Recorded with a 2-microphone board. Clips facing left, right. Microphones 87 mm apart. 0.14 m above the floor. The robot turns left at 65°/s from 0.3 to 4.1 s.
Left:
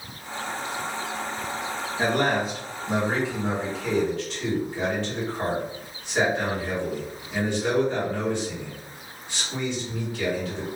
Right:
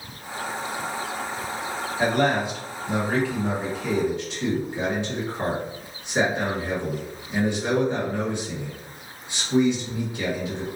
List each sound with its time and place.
2.0 s a man speaking: 110° left, 1.7 m; by 10.7 s 25° right, 1.7 m